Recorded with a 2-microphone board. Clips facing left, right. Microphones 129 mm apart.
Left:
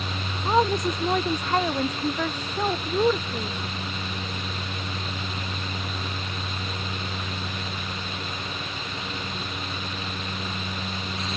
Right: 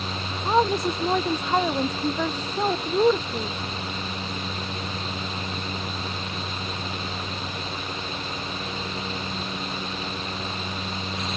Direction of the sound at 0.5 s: 5° right (ahead or behind).